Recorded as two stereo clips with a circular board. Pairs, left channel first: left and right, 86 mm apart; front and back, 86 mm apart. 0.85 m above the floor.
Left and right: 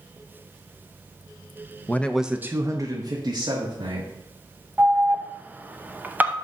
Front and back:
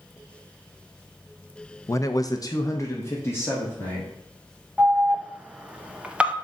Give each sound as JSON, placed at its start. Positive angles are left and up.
{"t": 1.9, "sound": "a man speaking", "azimuth_deg": 35, "distance_m": 0.6}
{"t": 4.8, "sound": "an alarm", "azimuth_deg": -125, "distance_m": 0.6}